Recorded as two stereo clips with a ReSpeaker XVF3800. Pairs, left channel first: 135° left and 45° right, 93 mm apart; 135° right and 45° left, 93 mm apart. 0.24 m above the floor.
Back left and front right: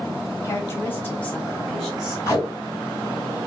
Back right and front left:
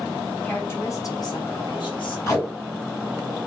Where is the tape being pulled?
Straight behind, 2 m.